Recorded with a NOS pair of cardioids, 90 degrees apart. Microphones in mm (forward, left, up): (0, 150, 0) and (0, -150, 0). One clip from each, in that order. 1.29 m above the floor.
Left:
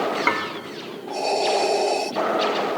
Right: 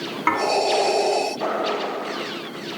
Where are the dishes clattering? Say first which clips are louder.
Right 3 dB; 10° left, 1.9 m.